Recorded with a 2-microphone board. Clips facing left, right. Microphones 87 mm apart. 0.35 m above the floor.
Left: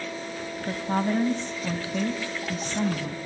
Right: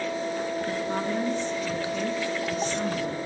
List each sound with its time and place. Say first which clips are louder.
0.7 s a woman speaking: left 1 dB; 45° left (ahead or behind), 3 m